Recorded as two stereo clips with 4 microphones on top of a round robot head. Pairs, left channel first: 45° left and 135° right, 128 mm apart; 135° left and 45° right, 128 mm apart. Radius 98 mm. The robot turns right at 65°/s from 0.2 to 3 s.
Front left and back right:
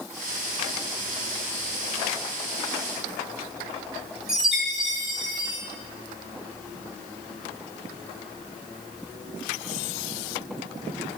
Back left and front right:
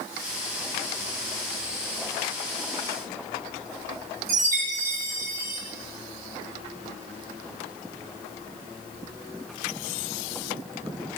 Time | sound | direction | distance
4.3 | a chime | 50° right | 5 m